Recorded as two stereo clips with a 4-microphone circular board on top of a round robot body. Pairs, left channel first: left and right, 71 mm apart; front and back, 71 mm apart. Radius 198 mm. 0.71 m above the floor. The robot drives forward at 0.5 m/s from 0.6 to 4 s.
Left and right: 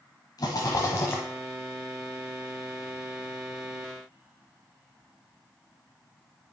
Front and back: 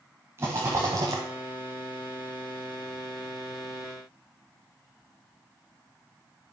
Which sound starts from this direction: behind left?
A rattle, at 0.4 s.